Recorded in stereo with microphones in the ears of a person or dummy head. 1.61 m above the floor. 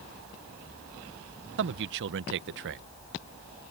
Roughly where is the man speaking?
Right.